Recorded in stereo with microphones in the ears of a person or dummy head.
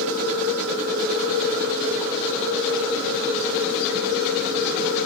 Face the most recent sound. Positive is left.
turn(degrees=-75)  # may be behind; listen again after turning